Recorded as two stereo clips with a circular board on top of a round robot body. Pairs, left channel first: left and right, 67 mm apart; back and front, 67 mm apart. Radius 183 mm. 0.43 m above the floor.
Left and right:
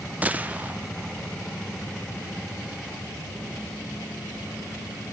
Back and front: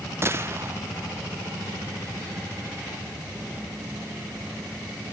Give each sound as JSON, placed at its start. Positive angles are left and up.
{"t": 0.2, "sound": "a gunshot", "azimuth_deg": -30, "distance_m": 1.3}